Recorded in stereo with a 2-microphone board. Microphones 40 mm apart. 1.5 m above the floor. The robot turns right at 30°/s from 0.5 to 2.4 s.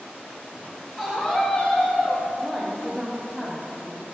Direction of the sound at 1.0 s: 5° left.